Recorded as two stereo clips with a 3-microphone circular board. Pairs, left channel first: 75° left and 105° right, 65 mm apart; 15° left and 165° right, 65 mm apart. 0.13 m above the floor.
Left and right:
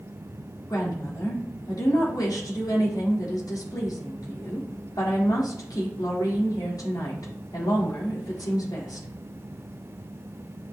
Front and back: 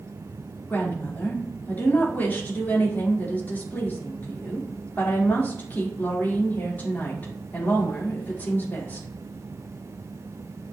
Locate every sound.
0.7 s a woman speaking: 75° left, 4.5 m